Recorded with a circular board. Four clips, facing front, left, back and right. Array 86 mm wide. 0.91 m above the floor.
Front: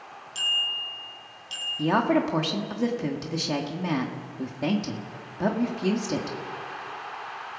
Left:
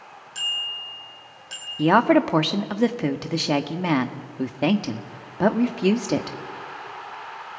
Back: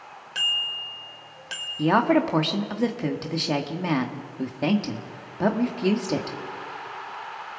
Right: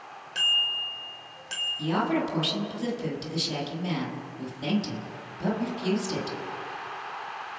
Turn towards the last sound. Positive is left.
turn(degrees=100)